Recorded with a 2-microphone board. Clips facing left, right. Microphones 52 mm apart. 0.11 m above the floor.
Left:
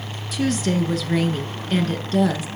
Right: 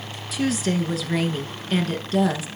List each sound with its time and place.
0.3 s a woman speaking: centre (ahead or behind), 1.2 m